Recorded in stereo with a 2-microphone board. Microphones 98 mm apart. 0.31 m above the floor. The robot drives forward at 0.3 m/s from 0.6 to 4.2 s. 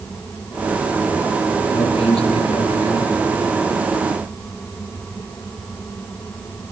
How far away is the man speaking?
About 6 m.